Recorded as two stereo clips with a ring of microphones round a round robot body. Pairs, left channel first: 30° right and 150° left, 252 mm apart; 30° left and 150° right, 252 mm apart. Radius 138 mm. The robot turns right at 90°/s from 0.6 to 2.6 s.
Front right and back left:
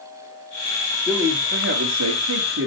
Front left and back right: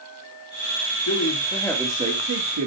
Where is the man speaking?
55° left, 2.5 m; by 2.7 s 165° right, 2.5 m.